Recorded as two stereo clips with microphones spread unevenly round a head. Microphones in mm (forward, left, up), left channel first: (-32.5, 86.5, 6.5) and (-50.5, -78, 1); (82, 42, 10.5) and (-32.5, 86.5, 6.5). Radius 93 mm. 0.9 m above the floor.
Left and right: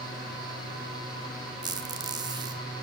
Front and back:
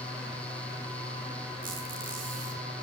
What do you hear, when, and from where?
1.6 s a squeak: 160° right, 1.4 m